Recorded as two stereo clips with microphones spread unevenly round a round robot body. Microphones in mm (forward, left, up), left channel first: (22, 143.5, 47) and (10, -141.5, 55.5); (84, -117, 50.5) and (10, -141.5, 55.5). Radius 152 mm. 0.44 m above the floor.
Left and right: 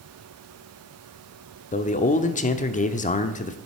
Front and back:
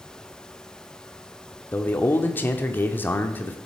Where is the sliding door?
No sliding door in this recording.